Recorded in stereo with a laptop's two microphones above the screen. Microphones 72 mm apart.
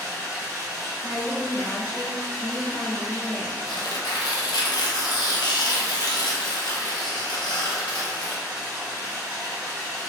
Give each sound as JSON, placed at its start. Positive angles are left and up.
{"t": 0.0, "sound": "running water", "side_deg": -25, "distance_m": 1.7}
{"t": 1.0, "sound": "a woman speaking", "side_deg": 25, "distance_m": 0.6}
{"t": 3.7, "sound": "tearing paper", "side_deg": 80, "distance_m": 0.6}